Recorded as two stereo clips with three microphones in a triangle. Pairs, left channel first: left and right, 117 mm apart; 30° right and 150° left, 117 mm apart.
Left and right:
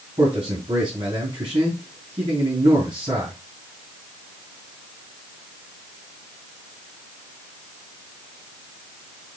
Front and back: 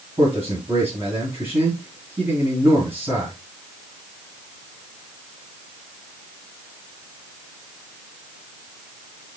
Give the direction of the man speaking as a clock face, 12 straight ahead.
5 o'clock.